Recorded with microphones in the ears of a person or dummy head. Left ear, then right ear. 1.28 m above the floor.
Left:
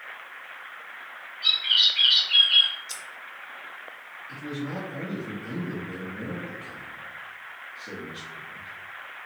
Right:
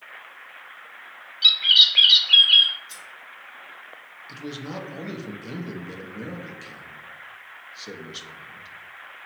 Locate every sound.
1.4 s a bird: 50° right (ahead or behind), 0.7 m
2.9 s scissors: 20° left (ahead or behind), 0.5 m
4.3 s a man speaking: 50° right (ahead or behind), 0.6 m